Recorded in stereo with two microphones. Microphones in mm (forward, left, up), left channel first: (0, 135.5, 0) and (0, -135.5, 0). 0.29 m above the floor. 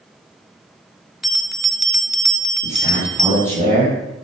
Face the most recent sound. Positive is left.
turn(degrees=-30)  # may be behind; listen again after turning